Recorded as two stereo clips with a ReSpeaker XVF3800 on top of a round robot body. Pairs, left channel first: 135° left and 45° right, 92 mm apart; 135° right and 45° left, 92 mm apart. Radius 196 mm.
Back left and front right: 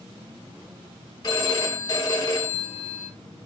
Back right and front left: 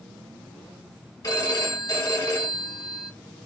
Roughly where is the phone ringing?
Behind.